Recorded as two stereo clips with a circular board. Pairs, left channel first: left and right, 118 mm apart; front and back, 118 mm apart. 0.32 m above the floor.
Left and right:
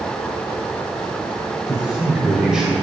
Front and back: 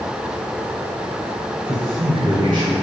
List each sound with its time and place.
1.7 s a man speaking: 165° right, 1.2 m